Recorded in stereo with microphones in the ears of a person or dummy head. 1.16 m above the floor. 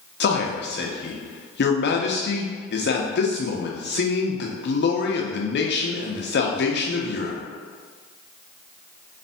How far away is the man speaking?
About 0.7 m.